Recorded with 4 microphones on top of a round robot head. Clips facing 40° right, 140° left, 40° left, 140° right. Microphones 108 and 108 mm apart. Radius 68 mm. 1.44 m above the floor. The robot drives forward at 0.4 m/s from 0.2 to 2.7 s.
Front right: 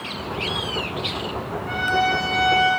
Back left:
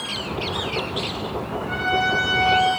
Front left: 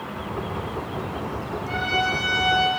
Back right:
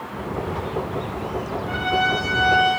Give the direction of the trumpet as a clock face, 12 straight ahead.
12 o'clock.